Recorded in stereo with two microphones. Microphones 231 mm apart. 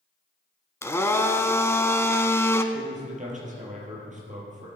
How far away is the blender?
About 0.7 m.